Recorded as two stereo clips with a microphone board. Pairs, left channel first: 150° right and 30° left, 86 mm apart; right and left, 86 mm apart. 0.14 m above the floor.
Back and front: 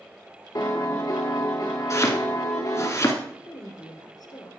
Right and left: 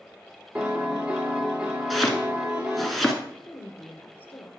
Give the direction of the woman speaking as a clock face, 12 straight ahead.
5 o'clock.